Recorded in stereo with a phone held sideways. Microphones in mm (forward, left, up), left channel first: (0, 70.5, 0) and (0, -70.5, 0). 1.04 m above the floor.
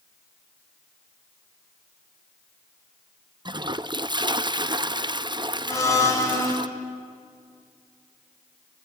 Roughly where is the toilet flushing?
Right.